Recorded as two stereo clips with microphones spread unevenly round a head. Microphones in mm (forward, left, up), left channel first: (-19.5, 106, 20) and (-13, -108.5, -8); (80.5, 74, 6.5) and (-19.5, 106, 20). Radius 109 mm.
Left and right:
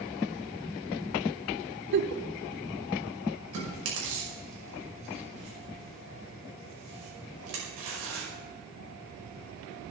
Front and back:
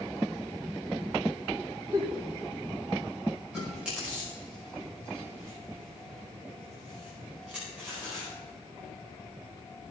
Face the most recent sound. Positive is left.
turn(degrees=-115)